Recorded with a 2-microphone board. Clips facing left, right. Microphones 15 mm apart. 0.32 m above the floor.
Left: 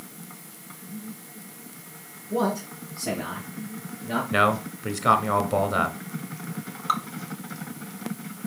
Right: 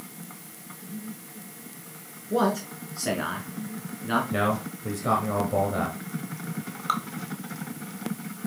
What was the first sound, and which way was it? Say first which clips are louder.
A man speaking: right 1 dB; 55° right (ahead or behind).